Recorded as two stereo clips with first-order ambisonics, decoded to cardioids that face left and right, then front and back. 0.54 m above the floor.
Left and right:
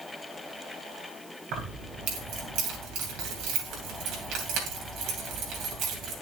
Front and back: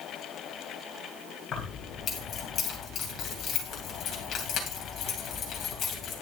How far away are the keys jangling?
About 3 m.